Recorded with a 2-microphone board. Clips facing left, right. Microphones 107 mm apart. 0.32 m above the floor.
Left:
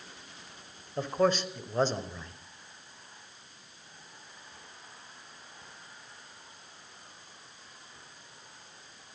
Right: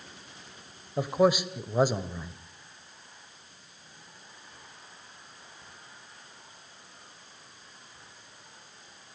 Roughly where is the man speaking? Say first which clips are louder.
Right 3 dB; centre.